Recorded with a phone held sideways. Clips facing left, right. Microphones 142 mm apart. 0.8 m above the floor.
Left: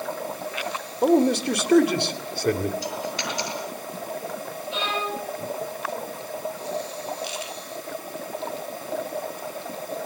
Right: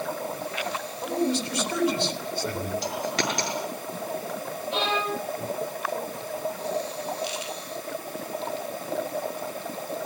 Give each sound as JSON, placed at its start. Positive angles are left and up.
{"t": 1.0, "sound": "a man speaking", "side_deg": 70, "distance_m": 3.0}
{"t": 2.8, "sound": "a dropped coin", "side_deg": -80, "distance_m": 6.5}
{"t": 4.7, "sound": "a violin", "side_deg": -60, "distance_m": 9.0}